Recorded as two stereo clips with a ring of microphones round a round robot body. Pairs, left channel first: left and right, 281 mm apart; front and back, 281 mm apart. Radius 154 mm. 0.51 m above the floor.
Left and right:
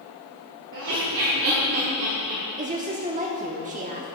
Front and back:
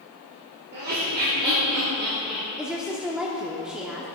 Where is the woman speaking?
95° right, 0.9 m.